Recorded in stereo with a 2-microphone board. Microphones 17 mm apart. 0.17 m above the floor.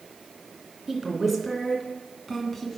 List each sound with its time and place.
0.9 s a woman speaking: centre (ahead or behind), 2 m; by 2.7 s 15° left (ahead or behind), 1.8 m